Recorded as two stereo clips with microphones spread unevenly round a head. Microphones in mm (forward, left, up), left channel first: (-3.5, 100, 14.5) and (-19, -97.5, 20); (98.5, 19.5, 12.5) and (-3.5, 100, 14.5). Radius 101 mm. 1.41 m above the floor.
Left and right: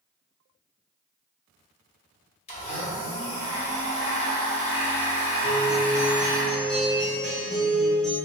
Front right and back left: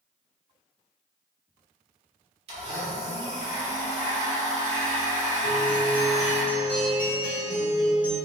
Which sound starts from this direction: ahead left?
A guitar, at 5.4 s.